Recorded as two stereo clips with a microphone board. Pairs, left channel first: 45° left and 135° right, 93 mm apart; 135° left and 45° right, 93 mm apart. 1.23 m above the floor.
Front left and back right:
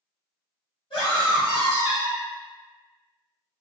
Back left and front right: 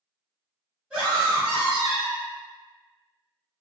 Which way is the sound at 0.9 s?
40° left.